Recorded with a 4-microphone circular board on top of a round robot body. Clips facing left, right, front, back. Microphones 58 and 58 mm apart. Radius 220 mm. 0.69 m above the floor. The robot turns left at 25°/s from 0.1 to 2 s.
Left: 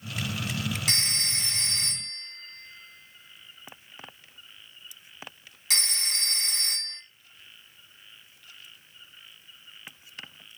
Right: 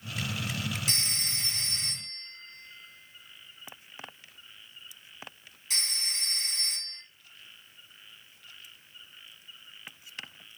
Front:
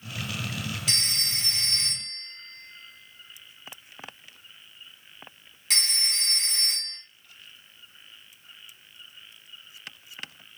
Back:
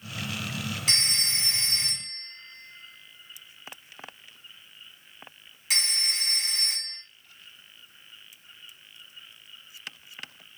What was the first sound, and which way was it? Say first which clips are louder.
A phone ringing: left 4 dB, back 4 dB; 125° left.